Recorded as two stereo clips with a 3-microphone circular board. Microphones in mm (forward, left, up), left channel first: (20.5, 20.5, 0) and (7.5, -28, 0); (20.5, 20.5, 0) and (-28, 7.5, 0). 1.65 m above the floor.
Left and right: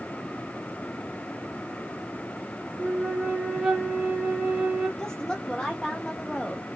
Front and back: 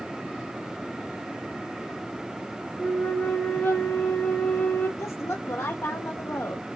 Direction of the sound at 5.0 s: Straight ahead.